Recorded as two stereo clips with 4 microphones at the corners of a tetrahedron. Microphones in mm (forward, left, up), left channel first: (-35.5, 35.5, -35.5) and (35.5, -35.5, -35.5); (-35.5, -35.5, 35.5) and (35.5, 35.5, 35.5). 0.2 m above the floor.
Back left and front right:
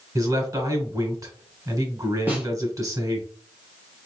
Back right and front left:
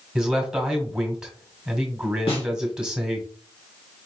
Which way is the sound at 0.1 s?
30° right.